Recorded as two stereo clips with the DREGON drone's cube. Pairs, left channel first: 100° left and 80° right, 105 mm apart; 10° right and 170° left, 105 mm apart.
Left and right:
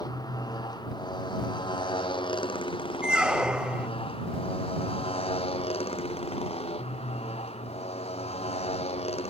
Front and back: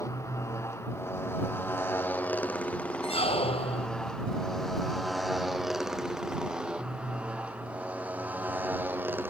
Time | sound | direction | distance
0.0 | a motorcycle | 50° left | ?
3.0 | a squeak | straight ahead | ?